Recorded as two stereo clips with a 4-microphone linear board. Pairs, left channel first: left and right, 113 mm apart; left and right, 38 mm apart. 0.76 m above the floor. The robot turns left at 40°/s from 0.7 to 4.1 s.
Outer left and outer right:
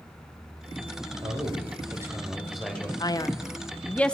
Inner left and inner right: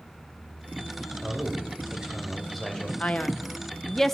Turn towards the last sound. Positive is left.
turn(degrees=10)